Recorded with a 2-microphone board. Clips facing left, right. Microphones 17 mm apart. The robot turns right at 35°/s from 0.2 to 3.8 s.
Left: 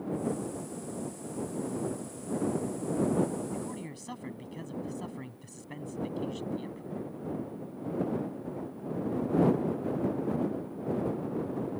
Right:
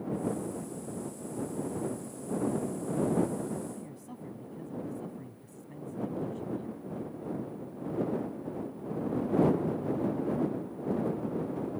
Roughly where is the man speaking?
Left.